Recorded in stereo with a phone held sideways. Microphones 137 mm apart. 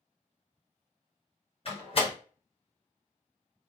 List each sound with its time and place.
1.6 s a door slam: 45° left (ahead or behind), 1.4 m